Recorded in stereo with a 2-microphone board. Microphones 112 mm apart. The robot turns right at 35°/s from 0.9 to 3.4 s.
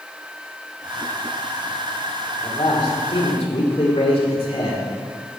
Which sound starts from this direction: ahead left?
A man speaking, at 2.4 s.